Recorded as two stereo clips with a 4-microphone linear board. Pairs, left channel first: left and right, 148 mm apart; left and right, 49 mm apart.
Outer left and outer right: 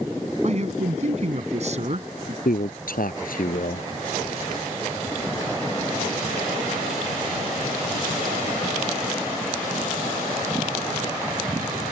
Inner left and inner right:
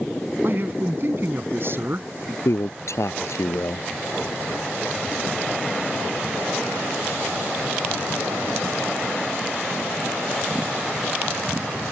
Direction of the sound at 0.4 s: 50° right (ahead or behind).